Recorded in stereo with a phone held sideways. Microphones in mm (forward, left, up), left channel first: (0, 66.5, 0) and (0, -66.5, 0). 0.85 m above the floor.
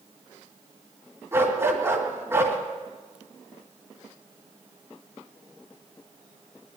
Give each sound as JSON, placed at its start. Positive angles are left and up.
{"t": 1.3, "sound": "a dog barking", "side_deg": -20, "distance_m": 2.0}